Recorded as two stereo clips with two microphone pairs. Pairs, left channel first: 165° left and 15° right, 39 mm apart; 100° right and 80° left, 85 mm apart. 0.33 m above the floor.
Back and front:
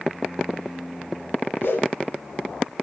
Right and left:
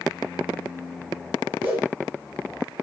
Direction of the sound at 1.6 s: 150° left.